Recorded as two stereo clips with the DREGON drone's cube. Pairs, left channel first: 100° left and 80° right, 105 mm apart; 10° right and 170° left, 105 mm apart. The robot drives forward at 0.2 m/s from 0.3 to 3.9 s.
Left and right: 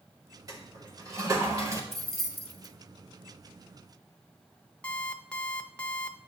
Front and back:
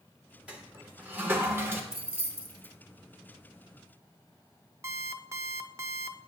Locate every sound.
0.5 s a toilet flushing: 115° right, 1.2 m; by 1.8 s 130° right, 1.3 m
1.9 s keys jangling: 170° right, 1.3 m; by 2.7 s 175° right, 1.5 m
4.8 s an alarm clock: 165° left, 0.6 m